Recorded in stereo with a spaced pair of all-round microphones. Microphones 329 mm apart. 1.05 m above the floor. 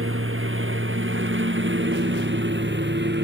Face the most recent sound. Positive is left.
turn(degrees=-30)  # may be behind; listen again after turning